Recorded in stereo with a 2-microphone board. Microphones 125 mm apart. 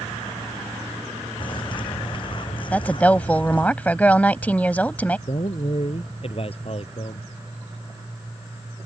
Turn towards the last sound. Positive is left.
turn(degrees=50)  # may be behind; listen again after turning